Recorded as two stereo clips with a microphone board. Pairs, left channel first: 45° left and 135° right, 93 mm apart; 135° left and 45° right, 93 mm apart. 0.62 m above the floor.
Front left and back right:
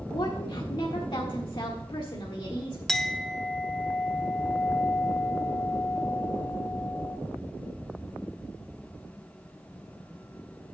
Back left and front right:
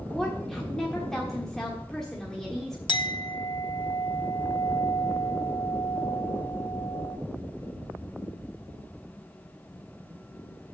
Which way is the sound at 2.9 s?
130° left.